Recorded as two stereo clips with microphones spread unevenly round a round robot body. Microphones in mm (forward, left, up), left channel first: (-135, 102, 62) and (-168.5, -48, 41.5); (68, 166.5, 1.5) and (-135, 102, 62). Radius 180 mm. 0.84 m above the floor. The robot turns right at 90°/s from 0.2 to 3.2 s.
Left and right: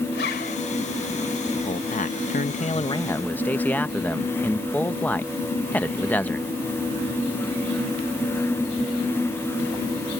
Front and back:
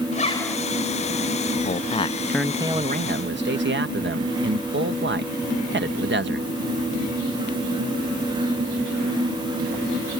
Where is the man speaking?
15° left; by 6.5 s 160° left.